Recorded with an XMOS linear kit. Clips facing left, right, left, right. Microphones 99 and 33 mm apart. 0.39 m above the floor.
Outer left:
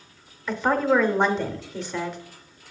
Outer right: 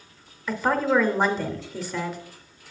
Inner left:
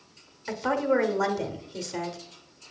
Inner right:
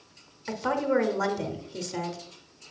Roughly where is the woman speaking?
Centre.